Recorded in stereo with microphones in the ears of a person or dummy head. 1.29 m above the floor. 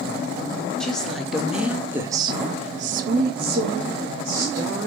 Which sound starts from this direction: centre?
A woman speaking, at 0.8 s.